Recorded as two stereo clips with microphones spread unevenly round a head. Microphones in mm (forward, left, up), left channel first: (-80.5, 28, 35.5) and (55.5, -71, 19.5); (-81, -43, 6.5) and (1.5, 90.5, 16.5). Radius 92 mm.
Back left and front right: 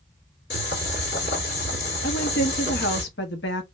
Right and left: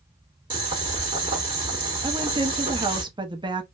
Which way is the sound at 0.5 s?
110° left.